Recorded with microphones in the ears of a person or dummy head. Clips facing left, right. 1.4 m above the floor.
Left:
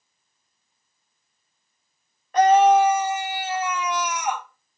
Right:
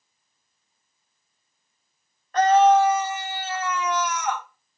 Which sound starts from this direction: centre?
A scream, at 2.3 s.